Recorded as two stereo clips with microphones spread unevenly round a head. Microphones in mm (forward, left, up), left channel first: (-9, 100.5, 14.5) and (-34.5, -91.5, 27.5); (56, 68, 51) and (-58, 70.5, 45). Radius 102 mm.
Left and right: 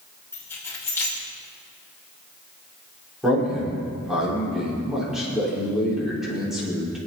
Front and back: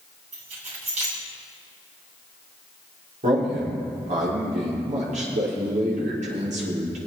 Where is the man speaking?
175° left, 5 m.